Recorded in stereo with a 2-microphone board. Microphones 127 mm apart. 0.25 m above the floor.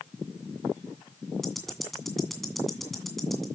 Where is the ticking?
Centre (ahead or behind), 2 m.